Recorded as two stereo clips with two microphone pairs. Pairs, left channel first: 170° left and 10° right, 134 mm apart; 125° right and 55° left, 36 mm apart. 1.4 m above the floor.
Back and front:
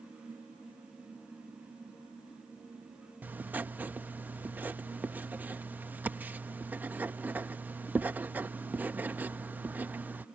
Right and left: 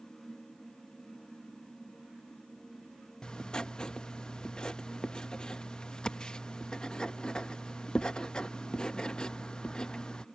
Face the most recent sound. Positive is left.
turn(degrees=-80)